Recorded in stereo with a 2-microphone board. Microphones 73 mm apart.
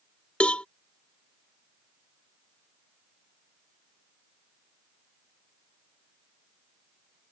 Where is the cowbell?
15° left (ahead or behind).